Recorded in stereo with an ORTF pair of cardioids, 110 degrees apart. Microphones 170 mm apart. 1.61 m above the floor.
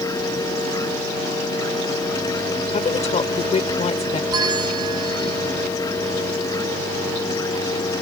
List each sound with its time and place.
0.0 s a machine running: 20° left
2.7 s a woman speaking: 40° left
4.3 s a bell: 25° right